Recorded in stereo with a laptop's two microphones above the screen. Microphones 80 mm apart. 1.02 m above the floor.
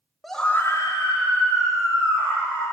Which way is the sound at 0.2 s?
Centre (ahead or behind).